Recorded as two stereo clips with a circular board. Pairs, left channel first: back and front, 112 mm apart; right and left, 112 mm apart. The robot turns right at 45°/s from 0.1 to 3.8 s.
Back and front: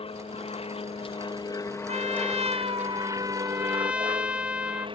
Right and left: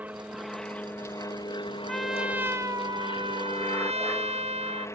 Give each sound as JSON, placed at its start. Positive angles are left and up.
{"t": 0.0, "sound": "an aircraft", "azimuth_deg": 165}
{"t": 1.9, "sound": "a trumpet", "azimuth_deg": -5}